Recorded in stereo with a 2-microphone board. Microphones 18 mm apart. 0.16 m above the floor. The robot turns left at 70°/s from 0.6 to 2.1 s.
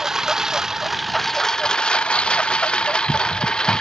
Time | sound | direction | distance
0.0 | a lawn mower | 20° right (ahead or behind) | ?